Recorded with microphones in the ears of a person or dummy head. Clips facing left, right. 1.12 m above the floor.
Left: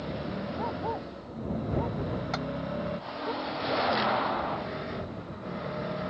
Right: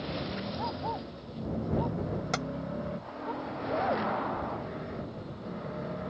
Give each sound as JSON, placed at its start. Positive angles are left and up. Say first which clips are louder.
{"t": 0.6, "sound": "a dog barking", "louder": "left 3 dB", "side_deg": 40}
{"t": 2.3, "sound": "tapping", "louder": "even", "side_deg": -45}